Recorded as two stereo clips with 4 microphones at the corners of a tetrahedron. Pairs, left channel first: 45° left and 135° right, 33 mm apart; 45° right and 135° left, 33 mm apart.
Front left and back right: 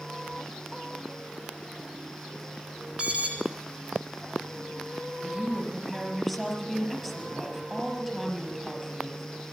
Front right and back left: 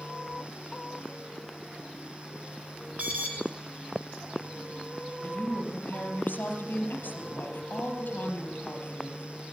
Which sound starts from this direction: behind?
An alarm, at 3.0 s.